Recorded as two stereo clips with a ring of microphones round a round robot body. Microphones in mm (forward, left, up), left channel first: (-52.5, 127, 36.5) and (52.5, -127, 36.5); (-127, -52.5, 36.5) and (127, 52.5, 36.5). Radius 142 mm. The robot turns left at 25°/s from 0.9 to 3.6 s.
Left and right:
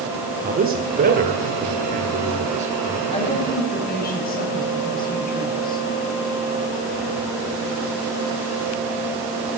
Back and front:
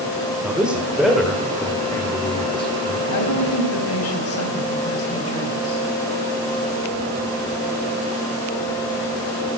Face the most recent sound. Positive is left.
turn(degrees=170)